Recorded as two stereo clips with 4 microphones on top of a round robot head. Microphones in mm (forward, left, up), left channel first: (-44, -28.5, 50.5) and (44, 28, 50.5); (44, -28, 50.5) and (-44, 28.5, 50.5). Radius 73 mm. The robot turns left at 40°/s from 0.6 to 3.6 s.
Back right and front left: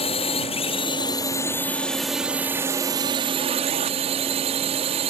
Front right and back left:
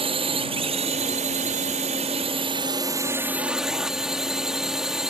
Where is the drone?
Straight behind; by 5.1 s 60° left.